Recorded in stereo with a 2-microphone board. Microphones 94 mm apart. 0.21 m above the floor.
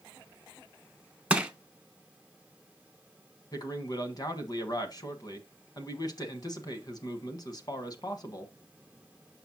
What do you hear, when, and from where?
1.3 s crushing: 15° right (ahead or behind), 0.8 m
3.5 s a man speaking: 45° left (ahead or behind), 1.3 m